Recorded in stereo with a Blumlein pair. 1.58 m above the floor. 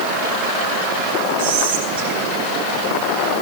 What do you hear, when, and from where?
1.4 s whispering: 65° right, 7.5 m